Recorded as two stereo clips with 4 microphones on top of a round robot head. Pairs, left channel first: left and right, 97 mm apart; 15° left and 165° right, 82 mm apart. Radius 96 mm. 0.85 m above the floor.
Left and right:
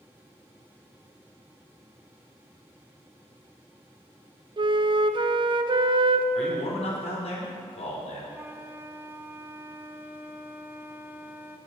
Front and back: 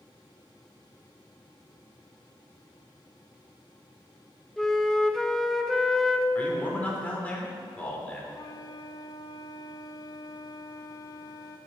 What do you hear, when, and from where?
4.6 s a flute: 70° right, 0.7 m
6.3 s a man speaking: 85° left, 3 m
8.3 s a flute: 20° right, 0.8 m